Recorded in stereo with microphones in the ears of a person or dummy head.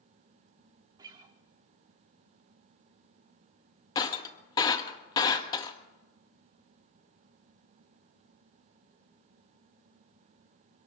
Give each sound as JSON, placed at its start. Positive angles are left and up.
{"t": 1.0, "sound": "a guitar", "side_deg": -25, "distance_m": 1.0}
{"t": 4.0, "sound": "breaking glass", "side_deg": 30, "distance_m": 1.4}